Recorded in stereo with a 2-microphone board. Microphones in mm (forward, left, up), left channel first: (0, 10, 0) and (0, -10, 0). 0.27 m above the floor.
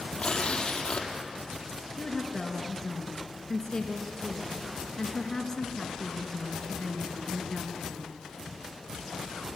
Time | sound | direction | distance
0.2 | tearing paper | 40° left (ahead or behind) | 4 m
2.0 | a woman speaking | 15° left (ahead or behind) | 3.5 m